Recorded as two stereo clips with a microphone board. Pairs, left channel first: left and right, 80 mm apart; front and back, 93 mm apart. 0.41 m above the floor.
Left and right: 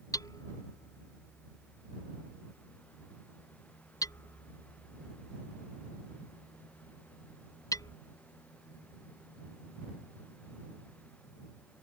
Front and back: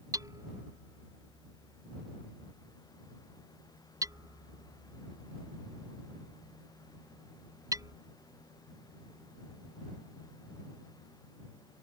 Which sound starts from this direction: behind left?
Hammering, at 0.1 s.